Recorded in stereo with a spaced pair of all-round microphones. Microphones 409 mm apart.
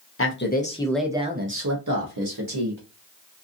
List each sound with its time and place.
0.2 s a man speaking: 35° left (ahead or behind), 0.8 m; by 2.8 s 65° right (ahead or behind), 1.1 m